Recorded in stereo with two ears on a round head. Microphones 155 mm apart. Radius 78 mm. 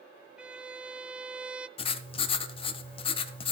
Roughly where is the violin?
Centre.